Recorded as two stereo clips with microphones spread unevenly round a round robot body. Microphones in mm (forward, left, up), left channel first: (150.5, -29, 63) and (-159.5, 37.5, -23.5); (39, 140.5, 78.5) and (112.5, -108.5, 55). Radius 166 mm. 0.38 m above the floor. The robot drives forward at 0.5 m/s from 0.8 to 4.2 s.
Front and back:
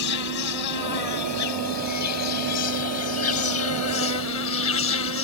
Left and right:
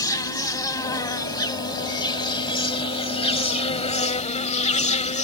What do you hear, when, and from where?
0.0 s an insect: 30° left; by 5.3 s 40° left